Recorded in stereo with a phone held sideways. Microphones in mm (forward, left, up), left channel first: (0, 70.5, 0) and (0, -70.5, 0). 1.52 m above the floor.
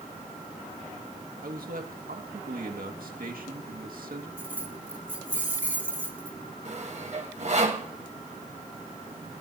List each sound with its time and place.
1.4 s a man speaking: 80° right, 2 m
4.4 s keys jangling: 10° right (ahead or behind), 1.9 m
6.7 s sawing: 50° right (ahead or behind), 2 m